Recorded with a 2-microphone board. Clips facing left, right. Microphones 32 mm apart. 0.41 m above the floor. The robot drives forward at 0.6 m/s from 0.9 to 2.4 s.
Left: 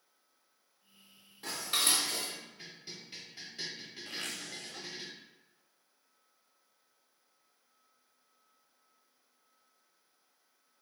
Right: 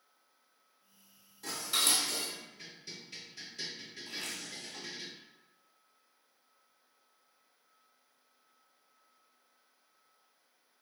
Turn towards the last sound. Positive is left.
turn(degrees=70)  # may be behind; listen again after turning